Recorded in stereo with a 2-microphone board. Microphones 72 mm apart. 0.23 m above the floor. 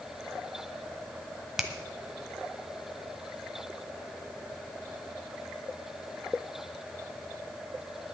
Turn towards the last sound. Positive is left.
turn(degrees=-5)  # may be behind; listen again after turning